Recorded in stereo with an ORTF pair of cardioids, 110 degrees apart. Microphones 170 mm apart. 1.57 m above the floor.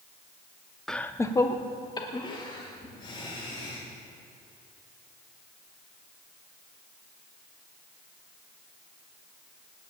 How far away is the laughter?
About 0.6 m.